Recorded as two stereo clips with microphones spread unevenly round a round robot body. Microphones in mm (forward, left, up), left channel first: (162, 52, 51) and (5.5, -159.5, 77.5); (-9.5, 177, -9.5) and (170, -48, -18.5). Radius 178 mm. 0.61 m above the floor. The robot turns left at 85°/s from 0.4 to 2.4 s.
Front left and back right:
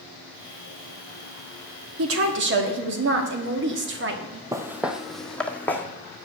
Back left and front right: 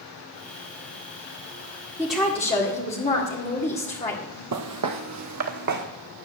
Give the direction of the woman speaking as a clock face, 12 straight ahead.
4 o'clock.